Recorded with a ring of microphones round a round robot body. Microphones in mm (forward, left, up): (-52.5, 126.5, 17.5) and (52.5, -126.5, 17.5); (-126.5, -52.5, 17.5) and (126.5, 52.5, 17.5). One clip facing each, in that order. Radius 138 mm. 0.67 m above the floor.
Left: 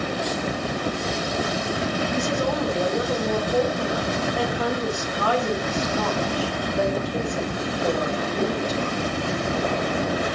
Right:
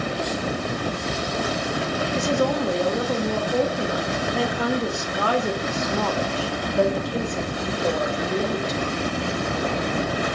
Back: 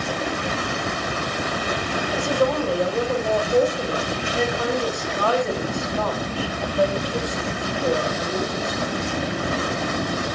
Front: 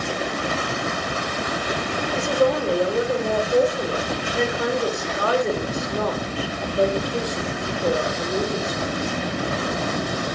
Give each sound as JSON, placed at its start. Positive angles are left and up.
{"t": 2.1, "sound": "a woman speaking", "azimuth_deg": -45, "distance_m": 2.5}